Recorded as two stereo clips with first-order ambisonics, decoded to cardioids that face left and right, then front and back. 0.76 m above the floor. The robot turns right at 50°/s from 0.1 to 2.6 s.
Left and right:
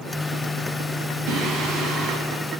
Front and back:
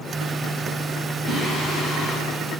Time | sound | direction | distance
1.3 | singing | 85° right | 8 m